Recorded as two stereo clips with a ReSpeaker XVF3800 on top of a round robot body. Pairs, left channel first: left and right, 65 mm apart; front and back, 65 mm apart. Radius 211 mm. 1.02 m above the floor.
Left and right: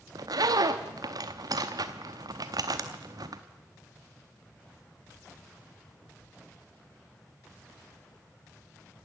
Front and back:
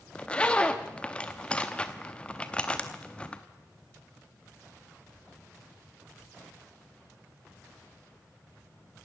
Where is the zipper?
75° right, 0.6 m.